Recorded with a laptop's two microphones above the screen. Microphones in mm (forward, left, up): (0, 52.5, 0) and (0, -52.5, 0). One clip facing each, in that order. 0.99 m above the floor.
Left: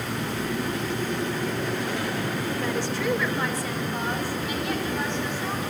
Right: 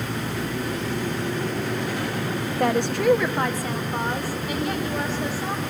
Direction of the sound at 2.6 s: 70° right (ahead or behind).